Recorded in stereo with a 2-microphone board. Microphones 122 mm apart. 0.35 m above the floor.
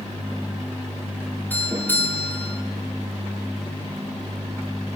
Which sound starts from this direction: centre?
A doorbell, at 1.5 s.